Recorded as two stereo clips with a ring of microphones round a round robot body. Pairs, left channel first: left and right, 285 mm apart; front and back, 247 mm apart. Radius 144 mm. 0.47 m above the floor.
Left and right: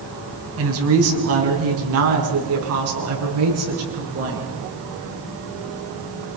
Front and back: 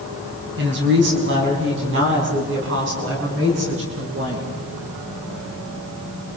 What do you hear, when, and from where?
0.6 s a woman speaking: 130° right, 4 m; by 4.4 s 125° right, 7.5 m